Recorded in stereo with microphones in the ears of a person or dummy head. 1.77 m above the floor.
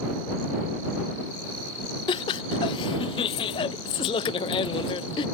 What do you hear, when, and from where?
2.1 s laughter: 25° left (ahead or behind)